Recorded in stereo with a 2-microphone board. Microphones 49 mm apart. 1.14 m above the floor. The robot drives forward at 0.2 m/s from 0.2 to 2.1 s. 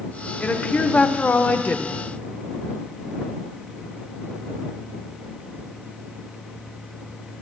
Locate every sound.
0.4 s a woman speaking: 30° left (ahead or behind), 0.9 m; by 2.0 s 40° left (ahead or behind), 0.8 m